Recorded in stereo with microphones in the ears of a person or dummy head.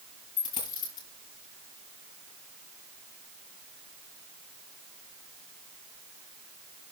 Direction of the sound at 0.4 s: 20° left (ahead or behind).